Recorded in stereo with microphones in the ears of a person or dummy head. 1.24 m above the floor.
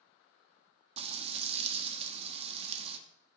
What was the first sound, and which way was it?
Frying, 35° right (ahead or behind).